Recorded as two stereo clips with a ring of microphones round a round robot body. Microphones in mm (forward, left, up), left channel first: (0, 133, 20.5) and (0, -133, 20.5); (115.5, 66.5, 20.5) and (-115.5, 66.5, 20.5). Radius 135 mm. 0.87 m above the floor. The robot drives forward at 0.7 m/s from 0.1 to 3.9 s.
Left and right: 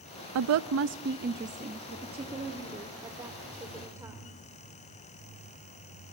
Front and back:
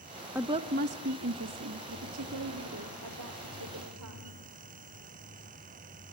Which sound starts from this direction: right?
A woman speaking, at 0.3 s.